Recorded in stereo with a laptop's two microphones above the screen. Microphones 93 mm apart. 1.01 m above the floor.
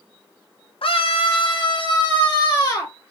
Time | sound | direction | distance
0.8 | a scream | 70° left (ahead or behind) | 0.6 m